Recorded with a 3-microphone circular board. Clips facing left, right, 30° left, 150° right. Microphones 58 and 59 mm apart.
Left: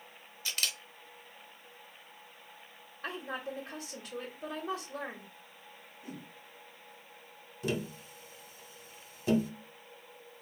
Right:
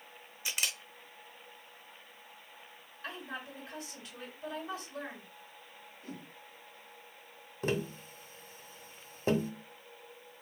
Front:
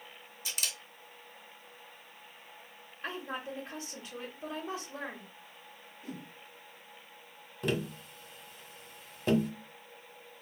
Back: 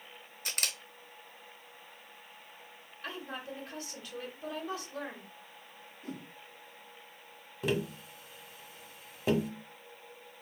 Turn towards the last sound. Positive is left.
turn(degrees=-70)